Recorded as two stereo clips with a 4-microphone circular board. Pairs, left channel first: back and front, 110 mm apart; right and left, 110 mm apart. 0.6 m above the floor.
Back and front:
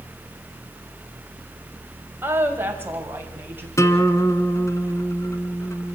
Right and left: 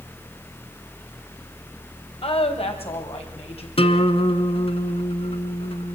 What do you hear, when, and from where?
2.2 s a woman speaking: 70° right, 3.5 m
3.8 s a guitar: 115° right, 1.4 m